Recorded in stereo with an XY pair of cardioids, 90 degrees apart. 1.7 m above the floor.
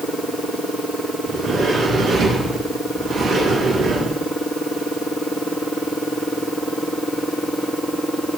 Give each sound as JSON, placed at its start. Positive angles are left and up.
{"t": 1.2, "sound": "a sliding door", "azimuth_deg": -70, "distance_m": 6.0}